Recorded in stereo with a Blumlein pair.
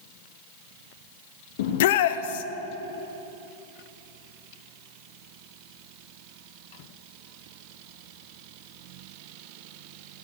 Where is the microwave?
No microwave in this recording.